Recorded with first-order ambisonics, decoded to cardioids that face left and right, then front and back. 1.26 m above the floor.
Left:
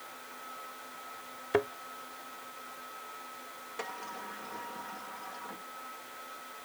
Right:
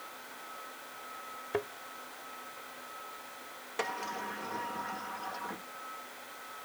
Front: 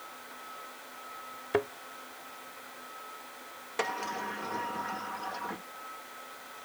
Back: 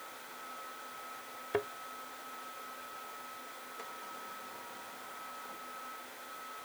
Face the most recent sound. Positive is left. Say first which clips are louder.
# right 5 dB, front 15 dB
turn(degrees=-20)